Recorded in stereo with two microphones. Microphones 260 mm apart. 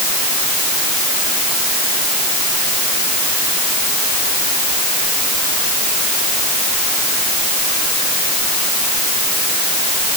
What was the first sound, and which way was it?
Only background noise.